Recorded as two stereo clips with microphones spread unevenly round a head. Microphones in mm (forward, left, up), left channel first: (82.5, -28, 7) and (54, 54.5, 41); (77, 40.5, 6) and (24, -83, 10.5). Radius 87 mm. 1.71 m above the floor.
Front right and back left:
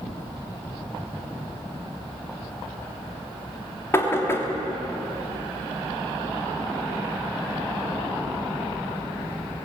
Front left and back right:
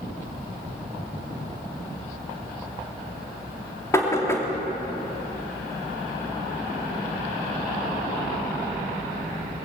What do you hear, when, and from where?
3.9 s knocking: 5° right, 3 m